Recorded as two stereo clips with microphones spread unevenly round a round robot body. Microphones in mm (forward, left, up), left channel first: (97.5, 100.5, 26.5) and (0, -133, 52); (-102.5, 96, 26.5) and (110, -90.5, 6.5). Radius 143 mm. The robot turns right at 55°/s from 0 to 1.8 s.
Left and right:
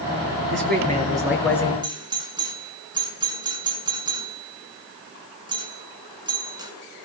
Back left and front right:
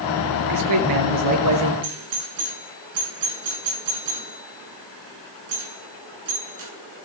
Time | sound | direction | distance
0.5 | a man speaking | 70° right | 6 m
1.8 | a doorbell | 40° right | 6 m